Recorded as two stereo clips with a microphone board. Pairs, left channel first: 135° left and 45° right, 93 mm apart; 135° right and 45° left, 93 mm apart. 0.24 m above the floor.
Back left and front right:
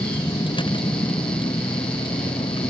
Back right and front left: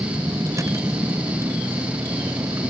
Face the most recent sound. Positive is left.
turn(degrees=105)